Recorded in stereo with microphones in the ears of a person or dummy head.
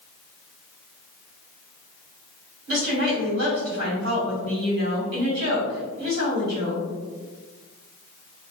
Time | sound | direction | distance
2.7 | a woman speaking | 75° right (ahead or behind) | 1.4 m